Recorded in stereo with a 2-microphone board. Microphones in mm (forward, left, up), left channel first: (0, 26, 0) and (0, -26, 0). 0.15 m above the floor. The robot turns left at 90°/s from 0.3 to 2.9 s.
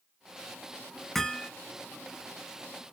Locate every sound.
1.1 s hammering: 10° left (ahead or behind), 0.6 m; by 1.5 s 15° left (ahead or behind), 0.6 m